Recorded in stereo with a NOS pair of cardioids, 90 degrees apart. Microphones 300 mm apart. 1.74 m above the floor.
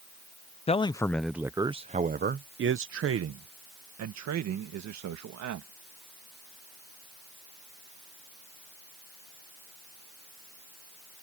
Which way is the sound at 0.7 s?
20° left.